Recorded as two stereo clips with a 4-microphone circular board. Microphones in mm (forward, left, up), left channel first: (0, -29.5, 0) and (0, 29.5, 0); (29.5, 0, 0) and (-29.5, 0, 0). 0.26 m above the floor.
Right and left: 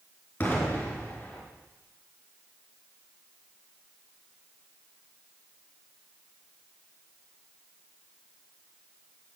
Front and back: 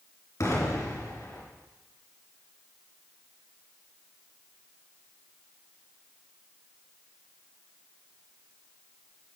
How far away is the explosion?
About 4 m.